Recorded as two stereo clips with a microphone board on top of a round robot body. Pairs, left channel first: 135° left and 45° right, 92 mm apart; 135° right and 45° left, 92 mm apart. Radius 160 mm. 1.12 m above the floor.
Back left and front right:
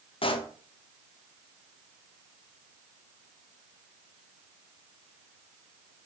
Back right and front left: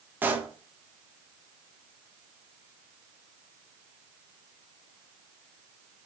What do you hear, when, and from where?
0.2 s a pop: 115° left, 1.2 m